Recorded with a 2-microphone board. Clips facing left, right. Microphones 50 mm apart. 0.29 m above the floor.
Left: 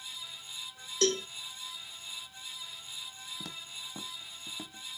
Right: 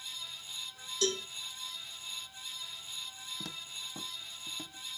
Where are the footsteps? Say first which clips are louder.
Even; centre (ahead or behind), 0.7 m; by 4.9 s 25° left (ahead or behind), 1.6 m.